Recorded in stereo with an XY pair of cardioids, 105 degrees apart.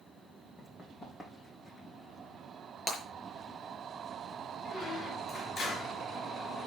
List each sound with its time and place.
0.6 s running footsteps: 30° left, 4.5 m
2.9 s breaking glass: 40° left, 5.5 m
4.7 s a squeak: 55° left, 4.5 m